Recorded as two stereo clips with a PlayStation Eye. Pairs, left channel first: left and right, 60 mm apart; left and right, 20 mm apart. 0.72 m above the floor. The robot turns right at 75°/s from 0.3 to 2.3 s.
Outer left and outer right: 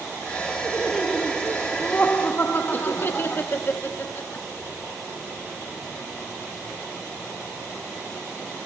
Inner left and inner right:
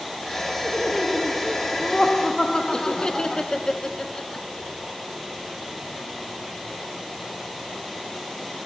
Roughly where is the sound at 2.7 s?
Left.